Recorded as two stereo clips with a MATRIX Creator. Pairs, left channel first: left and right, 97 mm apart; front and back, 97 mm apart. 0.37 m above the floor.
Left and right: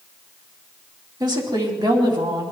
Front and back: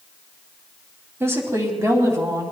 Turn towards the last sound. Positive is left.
turn(degrees=-125)